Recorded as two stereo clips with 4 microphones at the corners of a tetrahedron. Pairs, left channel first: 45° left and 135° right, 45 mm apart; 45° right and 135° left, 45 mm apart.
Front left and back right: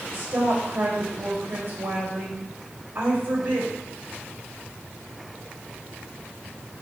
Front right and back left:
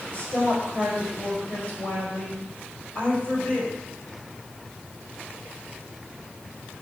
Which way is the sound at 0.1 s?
100° right.